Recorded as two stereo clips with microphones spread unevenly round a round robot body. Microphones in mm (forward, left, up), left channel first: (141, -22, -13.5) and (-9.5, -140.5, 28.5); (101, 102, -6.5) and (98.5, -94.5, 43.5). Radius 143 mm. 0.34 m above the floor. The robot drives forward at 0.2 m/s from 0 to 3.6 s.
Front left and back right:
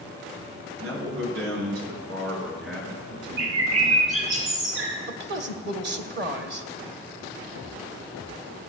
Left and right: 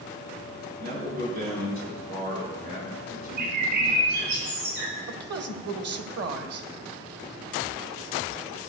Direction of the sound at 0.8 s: 150° right.